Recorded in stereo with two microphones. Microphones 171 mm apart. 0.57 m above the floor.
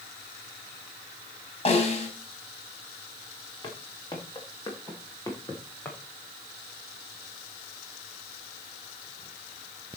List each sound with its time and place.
1.6 s a snare drum: 35° left (ahead or behind), 4.5 m
3.6 s footsteps: 25° left (ahead or behind), 4.5 m; by 6.0 s 10° left (ahead or behind), 3.5 m